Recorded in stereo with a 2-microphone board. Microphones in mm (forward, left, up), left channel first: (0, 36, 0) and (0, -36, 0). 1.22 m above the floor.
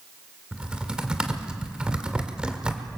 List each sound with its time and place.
0.5 s typing on a keyboard: 15° right (ahead or behind), 1.8 m